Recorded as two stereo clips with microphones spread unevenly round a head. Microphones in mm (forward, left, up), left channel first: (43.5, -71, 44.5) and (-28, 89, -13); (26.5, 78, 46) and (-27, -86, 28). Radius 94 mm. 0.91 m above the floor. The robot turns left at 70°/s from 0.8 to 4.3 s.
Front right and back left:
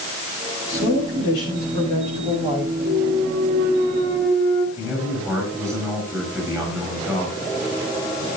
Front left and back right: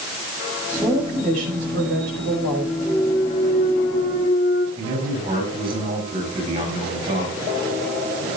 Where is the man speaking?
170° right, 9.5 m.